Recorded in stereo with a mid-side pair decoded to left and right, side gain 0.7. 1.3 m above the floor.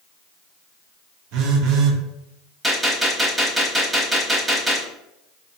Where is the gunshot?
5° right, 1.5 m.